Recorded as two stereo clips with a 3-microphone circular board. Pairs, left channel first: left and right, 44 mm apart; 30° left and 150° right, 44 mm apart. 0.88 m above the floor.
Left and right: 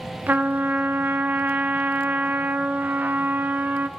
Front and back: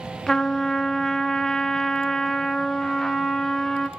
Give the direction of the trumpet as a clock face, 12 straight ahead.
2 o'clock.